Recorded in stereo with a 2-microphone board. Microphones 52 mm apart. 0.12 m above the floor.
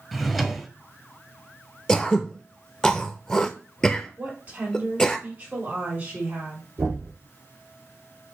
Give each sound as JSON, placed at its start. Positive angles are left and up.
{"t": 0.1, "sound": "a drawer", "side_deg": 5, "distance_m": 0.6}
{"t": 1.9, "sound": "throat clearing", "side_deg": 15, "distance_m": 0.5}
{"t": 4.2, "sound": "a woman speaking", "side_deg": -30, "distance_m": 3.5}
{"t": 6.8, "sound": "knocking", "side_deg": -65, "distance_m": 3.0}